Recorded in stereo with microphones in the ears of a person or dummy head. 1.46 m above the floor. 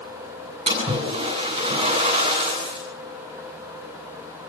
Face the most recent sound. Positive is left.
turn(degrees=-25)  # may be behind; listen again after turning